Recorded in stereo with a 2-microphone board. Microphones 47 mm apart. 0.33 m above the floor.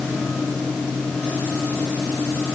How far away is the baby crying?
No baby crying in this recording.